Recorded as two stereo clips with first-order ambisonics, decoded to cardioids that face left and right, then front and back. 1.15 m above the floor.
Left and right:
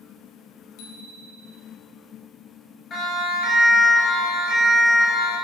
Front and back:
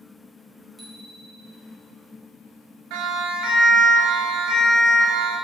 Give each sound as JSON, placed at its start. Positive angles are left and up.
{"t": 0.8, "sound": "a bicycle bell", "azimuth_deg": 90, "distance_m": 3.5}
{"t": 2.9, "sound": "a siren", "azimuth_deg": 150, "distance_m": 6.5}